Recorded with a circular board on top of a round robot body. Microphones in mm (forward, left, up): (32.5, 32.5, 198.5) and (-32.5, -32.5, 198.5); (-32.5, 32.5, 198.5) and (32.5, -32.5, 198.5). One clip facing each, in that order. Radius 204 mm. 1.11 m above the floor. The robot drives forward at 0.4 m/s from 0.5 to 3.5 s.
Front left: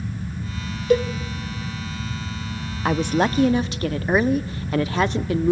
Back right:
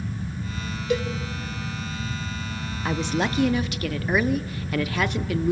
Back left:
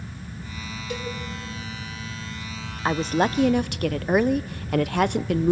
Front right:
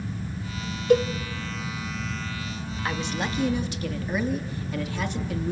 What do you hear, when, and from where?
0.9 s a cowbell: straight ahead, 0.6 m
2.9 s a woman speaking: 75° left, 0.6 m; by 5.5 s 105° left, 0.6 m